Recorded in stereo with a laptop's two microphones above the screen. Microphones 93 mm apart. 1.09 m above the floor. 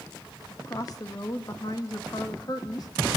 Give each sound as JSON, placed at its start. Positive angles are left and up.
{"t": 0.5, "sound": "a woman speaking", "side_deg": 40, "distance_m": 1.4}